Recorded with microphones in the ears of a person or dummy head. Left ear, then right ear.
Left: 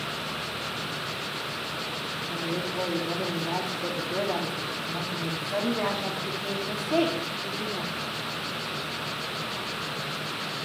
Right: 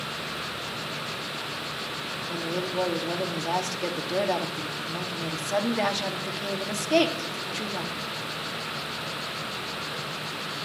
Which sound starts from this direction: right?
A woman speaking, at 2.3 s.